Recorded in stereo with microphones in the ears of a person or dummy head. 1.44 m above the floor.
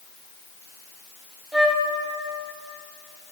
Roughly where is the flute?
Centre.